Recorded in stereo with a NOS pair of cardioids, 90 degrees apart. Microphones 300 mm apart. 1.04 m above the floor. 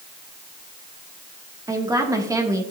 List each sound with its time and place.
1.7 s a woman speaking: 10° right, 2.5 m